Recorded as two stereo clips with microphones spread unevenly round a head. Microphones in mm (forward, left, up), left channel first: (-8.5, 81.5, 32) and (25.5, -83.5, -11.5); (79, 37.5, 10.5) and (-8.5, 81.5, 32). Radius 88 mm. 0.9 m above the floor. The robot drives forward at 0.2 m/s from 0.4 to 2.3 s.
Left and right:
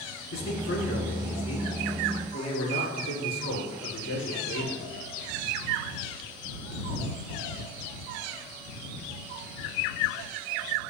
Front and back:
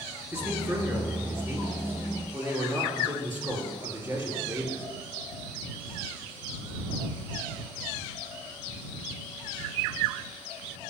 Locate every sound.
0.3 s a man speaking: 90° left, 2.5 m; by 4.8 s 95° left, 2.5 m